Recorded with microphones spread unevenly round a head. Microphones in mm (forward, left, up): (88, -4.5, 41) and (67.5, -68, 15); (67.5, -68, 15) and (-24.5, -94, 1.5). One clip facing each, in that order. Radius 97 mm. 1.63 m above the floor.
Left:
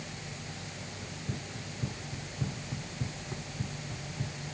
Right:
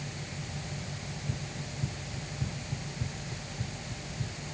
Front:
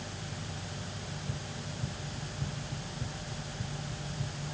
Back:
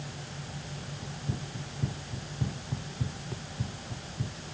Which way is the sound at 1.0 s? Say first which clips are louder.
Right 1 dB, back 2 dB; 145° left.